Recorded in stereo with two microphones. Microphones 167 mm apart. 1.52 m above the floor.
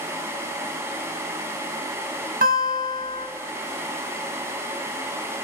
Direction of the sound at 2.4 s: 55° right (ahead or behind).